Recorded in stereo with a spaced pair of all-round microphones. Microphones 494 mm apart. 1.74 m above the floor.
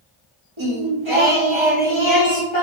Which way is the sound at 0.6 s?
65° right (ahead or behind).